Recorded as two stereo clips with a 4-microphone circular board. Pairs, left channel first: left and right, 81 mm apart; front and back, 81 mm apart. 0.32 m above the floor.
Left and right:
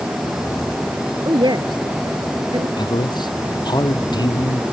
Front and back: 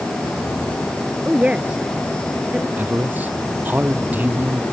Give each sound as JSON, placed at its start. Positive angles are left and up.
{"t": 1.2, "sound": "a woman speaking", "azimuth_deg": -105}
{"t": 2.8, "sound": "a man speaking", "azimuth_deg": 115}